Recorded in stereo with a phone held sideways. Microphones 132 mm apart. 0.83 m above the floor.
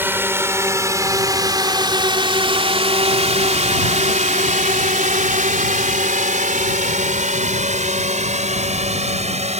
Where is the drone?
15° right (ahead or behind); by 9.6 s 55° right (ahead or behind).